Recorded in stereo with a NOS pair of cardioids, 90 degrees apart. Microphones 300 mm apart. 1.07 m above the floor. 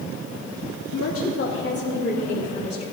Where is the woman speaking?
60° left, 1.6 m; by 2.8 s 20° left, 3.5 m.